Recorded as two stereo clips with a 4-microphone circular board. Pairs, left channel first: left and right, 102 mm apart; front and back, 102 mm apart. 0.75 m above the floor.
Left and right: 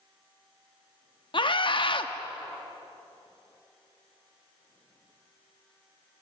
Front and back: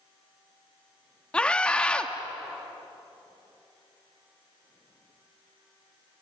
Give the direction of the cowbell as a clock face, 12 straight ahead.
I don't hear a cowbell.